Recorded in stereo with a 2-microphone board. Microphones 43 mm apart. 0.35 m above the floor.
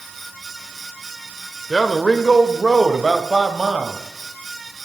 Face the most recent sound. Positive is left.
turn(degrees=-10)  # may be behind; listen again after turning